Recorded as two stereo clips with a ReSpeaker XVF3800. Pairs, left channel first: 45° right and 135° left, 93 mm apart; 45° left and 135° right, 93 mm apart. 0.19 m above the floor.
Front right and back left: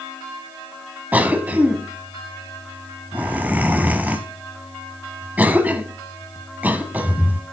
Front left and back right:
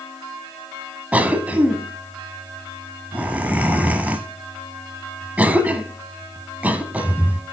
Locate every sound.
1.1 s a cough: straight behind, 1.0 m